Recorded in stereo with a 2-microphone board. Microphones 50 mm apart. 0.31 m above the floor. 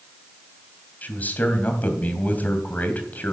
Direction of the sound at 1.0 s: 35° left (ahead or behind).